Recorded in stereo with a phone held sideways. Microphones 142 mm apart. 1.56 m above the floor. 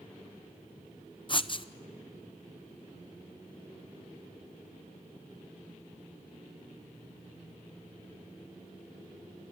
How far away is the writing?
About 0.7 m.